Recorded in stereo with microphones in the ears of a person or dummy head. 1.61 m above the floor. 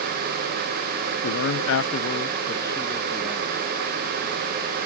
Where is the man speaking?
65° left (ahead or behind); by 3.7 s centre (ahead or behind).